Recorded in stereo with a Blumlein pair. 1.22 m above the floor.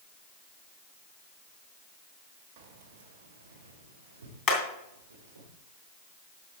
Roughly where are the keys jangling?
Ahead right.